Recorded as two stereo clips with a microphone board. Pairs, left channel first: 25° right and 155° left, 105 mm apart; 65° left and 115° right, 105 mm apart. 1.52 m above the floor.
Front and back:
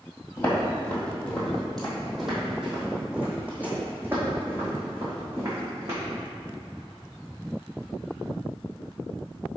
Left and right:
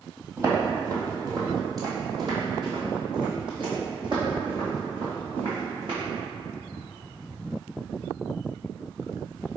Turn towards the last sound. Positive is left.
turn(degrees=-145)